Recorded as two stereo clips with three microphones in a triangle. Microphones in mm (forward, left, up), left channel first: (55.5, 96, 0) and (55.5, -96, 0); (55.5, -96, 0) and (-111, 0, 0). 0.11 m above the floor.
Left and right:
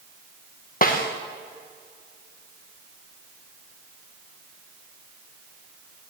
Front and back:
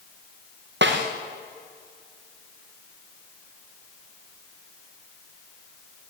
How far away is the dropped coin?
I don't hear a dropped coin.